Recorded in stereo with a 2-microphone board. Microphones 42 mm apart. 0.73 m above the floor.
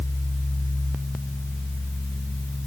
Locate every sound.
Only background noise.